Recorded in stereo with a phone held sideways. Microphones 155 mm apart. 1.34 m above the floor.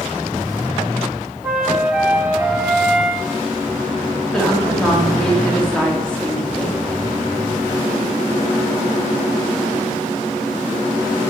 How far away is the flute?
About 2.5 m.